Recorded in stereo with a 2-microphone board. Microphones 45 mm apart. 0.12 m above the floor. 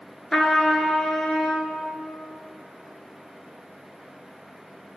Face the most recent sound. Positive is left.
turn(degrees=10)  # may be behind; listen again after turning